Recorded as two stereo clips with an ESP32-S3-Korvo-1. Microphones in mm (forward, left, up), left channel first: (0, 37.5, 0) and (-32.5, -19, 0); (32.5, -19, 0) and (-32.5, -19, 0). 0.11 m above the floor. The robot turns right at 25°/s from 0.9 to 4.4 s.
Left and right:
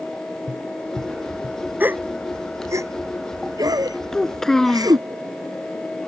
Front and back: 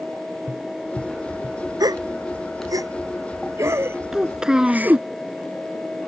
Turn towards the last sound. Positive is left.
turn(degrees=125)